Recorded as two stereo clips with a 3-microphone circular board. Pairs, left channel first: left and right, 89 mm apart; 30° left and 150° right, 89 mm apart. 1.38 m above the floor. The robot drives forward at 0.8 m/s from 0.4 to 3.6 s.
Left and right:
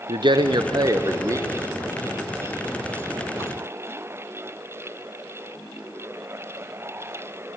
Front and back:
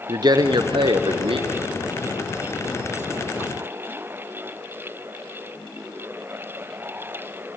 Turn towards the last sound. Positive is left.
turn(degrees=-165)